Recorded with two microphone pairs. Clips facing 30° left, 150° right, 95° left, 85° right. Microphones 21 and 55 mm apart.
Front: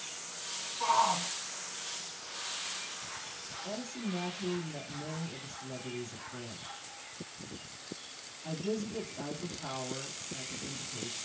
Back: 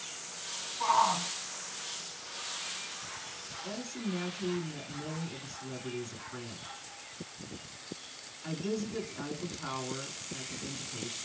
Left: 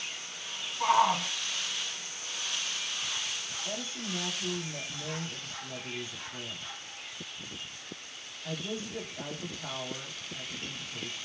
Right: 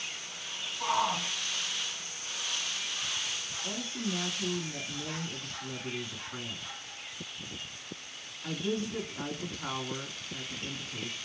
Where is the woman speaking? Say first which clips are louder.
Back 1 dB, right 3 dB; 100° right, 2.0 m.